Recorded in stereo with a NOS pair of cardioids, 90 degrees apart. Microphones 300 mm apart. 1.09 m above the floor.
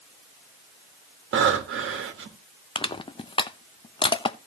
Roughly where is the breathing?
Ahead right.